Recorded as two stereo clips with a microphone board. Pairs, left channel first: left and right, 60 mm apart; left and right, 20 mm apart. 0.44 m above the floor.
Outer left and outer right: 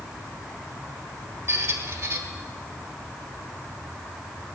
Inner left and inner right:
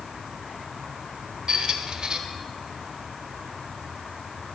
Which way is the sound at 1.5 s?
50° right (ahead or behind).